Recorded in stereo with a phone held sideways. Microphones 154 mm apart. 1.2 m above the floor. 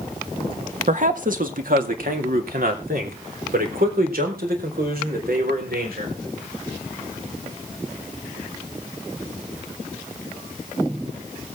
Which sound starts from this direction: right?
A man speaking, at 0.9 s.